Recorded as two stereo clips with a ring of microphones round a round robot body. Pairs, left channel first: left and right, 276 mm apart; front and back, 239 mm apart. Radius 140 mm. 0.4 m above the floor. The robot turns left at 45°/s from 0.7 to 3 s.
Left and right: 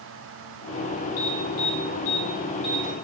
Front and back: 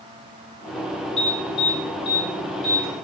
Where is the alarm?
90° left, 7.5 m; by 2.9 s 10° left, 7.5 m.